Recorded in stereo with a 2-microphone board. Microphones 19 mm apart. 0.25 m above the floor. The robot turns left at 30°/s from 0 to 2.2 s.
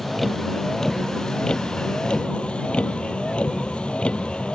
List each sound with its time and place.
0.0 s a vehicle: 5° right (ahead or behind); by 4.6 s 80° left